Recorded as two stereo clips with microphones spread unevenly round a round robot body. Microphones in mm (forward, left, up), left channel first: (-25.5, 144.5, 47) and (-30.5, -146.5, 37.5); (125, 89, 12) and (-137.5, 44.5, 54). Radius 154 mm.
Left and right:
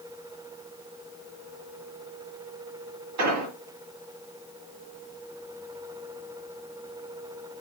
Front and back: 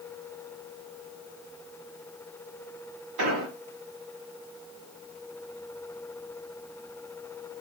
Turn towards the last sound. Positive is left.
turn(degrees=-120)